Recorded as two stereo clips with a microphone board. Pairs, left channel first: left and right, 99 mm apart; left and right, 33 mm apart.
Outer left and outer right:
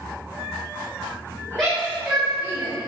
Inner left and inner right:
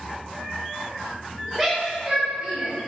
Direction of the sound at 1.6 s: 5° left (ahead or behind).